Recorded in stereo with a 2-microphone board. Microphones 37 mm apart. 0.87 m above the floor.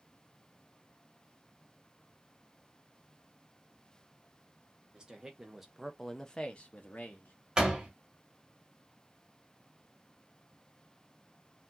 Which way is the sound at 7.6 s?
20° right (ahead or behind).